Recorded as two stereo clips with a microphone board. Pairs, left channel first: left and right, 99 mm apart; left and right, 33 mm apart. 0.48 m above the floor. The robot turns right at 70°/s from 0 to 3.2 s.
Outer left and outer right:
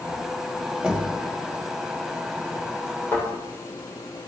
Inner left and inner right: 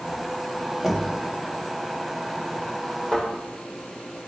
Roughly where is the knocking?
Centre.